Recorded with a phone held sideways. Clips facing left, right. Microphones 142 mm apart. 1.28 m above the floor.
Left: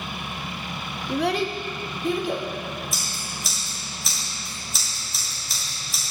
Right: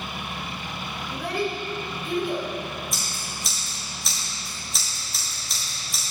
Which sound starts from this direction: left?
A child speaking, at 1.1 s.